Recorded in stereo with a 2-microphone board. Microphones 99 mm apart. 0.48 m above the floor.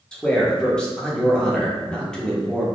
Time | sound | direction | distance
0.1 | a man speaking | 5° left (ahead or behind) | 0.9 m